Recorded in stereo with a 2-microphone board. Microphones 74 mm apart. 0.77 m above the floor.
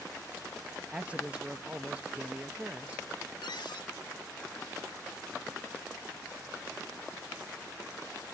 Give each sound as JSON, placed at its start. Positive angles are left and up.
{"t": 0.9, "sound": "a man speaking", "side_deg": -15, "distance_m": 0.5}
{"t": 3.4, "sound": "a cupboard door", "side_deg": 80, "distance_m": 0.9}